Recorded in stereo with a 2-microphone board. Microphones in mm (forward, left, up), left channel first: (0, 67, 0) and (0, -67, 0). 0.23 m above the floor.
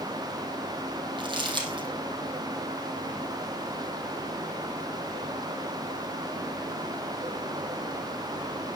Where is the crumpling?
35° right (ahead or behind), 3.5 m.